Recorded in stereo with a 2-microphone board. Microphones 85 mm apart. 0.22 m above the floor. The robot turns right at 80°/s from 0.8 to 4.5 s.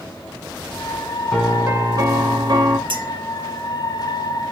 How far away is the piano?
About 0.9 m.